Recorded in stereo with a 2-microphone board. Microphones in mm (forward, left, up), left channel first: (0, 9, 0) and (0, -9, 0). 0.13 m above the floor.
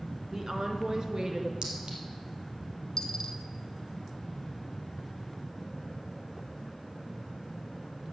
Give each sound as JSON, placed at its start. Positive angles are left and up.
{"t": 0.3, "sound": "a woman speaking", "side_deg": -30, "distance_m": 1.2}
{"t": 1.6, "sound": "a clink", "side_deg": -50, "distance_m": 2.5}
{"t": 3.0, "sound": "a dropped coin", "side_deg": 40, "distance_m": 0.8}